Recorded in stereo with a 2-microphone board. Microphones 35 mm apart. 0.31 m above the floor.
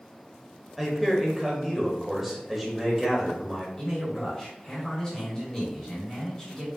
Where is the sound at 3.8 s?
20° left (ahead or behind), 2.0 m.